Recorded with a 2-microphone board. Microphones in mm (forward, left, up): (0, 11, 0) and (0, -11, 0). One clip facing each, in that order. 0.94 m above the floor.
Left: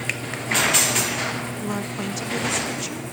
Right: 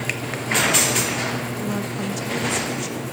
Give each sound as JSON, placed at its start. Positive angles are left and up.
{"t": 1.6, "sound": "a woman speaking", "side_deg": 15, "distance_m": 1.0}